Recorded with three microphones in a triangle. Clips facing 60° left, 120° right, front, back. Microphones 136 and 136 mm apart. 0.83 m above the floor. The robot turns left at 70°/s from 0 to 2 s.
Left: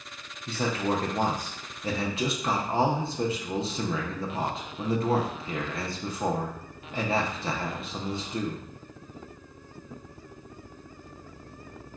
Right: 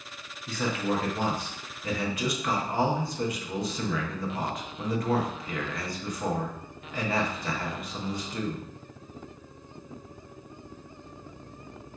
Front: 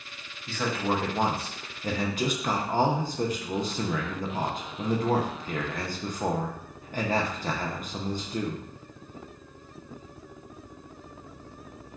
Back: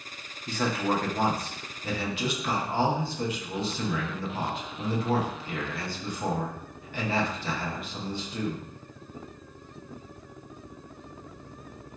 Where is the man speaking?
115° left, 0.6 m; by 8.7 s 10° left, 0.6 m.